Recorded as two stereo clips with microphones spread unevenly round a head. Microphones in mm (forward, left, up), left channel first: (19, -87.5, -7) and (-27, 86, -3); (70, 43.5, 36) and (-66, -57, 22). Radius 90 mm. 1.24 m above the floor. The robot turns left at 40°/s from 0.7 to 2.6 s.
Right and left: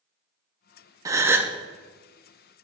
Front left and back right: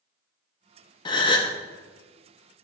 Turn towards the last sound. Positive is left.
turn(degrees=-5)